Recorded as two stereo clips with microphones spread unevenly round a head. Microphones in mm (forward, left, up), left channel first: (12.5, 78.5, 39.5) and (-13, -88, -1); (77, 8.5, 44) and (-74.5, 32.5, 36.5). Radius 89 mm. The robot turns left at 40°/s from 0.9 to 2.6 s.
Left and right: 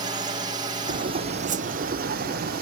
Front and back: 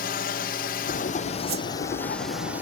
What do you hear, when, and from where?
0.0 s a drone: 45° right; by 2.6 s 110° right
1.5 s a whoosh: 150° right; by 1.7 s 160° right